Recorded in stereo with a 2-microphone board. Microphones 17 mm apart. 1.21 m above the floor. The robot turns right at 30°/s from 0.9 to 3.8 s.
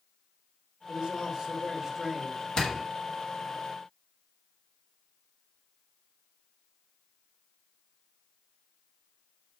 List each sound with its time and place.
0.9 s a man speaking: 50° right, 3 m; by 2.5 s 5° right, 3 m
2.6 s a door slam: 55° left (ahead or behind), 2.5 m; by 2.8 s 60° left (ahead or behind), 2.5 m